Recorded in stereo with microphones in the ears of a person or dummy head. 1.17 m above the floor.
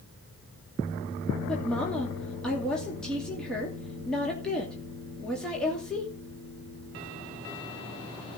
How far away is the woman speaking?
About 2.5 m.